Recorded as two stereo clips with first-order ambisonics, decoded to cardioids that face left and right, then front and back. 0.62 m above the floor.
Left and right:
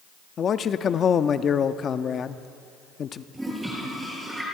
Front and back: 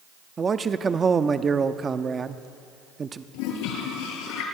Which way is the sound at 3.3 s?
5° right.